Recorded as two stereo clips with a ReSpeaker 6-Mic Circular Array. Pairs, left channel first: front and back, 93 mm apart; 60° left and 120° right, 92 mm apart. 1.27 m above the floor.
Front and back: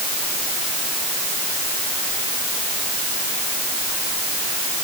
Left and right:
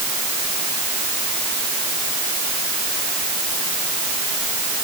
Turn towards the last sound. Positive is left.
No sound to turn to.